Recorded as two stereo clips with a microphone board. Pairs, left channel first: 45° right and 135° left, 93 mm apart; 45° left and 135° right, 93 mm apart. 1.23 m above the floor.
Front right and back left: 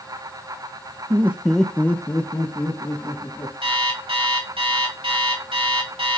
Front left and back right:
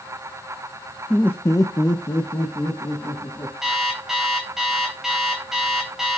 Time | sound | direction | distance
1.1 | laughter | 120° left | 0.5 m
3.6 | an alarm clock | 140° left | 2.5 m